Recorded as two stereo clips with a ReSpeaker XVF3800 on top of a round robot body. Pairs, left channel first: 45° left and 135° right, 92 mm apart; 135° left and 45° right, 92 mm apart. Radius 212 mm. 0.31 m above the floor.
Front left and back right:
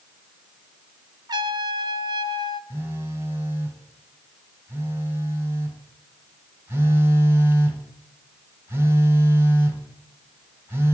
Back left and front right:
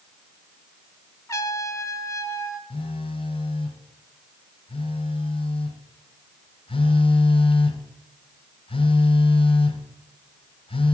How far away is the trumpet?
About 1.6 m.